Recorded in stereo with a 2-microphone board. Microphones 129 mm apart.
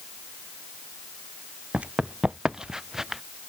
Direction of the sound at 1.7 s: 10° right (ahead or behind).